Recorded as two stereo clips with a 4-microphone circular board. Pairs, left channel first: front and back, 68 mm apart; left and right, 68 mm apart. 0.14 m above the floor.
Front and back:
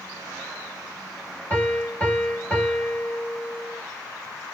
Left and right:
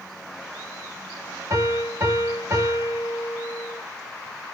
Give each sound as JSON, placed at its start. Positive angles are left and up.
{"t": 1.5, "sound": "a piano", "azimuth_deg": -60, "distance_m": 2.5}